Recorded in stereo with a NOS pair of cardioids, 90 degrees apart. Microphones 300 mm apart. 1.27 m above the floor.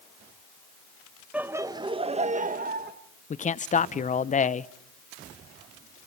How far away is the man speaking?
About 0.7 m.